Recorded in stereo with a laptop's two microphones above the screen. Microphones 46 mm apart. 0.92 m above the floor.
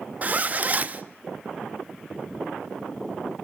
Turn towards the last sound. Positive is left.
turn(degrees=-35)  # may be behind; listen again after turning